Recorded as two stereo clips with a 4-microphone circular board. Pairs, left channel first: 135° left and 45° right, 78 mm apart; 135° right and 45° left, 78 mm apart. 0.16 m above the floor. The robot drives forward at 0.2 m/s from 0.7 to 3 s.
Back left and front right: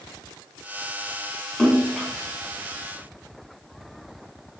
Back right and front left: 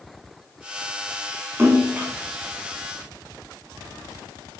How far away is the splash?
About 1.0 m.